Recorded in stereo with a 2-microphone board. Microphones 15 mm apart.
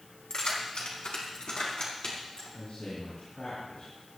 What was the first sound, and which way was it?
Keys jangling, 80° left.